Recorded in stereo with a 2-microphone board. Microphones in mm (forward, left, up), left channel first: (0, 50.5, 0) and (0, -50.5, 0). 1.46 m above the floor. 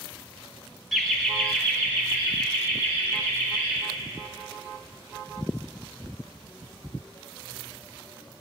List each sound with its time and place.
0.9 s laughter: centre (ahead or behind), 1.2 m; by 3.8 s 20° left (ahead or behind), 4.5 m